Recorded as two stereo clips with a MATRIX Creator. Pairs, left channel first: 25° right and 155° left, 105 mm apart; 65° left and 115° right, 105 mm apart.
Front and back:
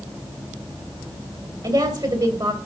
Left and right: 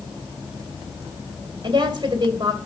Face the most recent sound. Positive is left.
turn(degrees=-155)